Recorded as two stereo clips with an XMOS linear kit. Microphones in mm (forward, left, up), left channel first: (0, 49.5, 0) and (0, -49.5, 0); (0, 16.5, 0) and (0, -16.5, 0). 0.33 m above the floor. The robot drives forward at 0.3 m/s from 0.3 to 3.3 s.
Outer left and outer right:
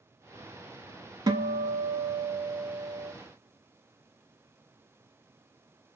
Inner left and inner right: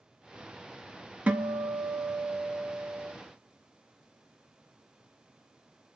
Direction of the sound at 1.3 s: 45° right (ahead or behind).